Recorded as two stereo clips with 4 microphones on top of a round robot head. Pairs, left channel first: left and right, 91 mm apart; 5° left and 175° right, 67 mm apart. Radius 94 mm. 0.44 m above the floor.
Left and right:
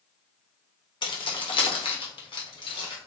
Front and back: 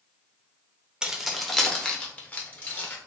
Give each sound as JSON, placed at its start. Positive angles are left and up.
{"t": 1.0, "sound": "keys jangling", "azimuth_deg": 110, "distance_m": 1.3}